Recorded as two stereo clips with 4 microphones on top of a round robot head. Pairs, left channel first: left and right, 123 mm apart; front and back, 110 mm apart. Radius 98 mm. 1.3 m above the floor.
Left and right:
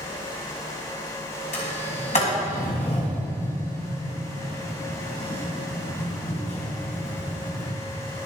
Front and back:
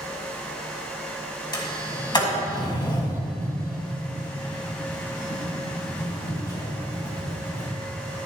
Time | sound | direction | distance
1.5 | a sliding door | 40° left | 2.0 m